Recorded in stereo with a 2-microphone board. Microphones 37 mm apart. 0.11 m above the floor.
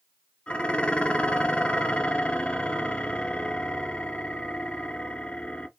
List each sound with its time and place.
0.5 s dishes clattering: 35° left (ahead or behind), 1.0 m